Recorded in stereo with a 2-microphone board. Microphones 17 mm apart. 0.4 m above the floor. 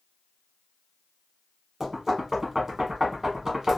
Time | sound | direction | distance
1.8 | knocking | 20° right (ahead or behind) | 1.1 m